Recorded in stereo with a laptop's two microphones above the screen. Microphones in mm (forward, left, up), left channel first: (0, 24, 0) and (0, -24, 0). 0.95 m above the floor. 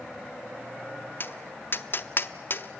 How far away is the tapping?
About 0.7 m.